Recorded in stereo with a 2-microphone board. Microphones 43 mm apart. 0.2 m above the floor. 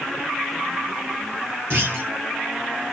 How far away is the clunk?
About 2 m.